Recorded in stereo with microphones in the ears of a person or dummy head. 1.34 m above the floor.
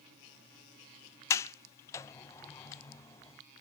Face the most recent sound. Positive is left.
turn(degrees=20)  # may be behind; listen again after turning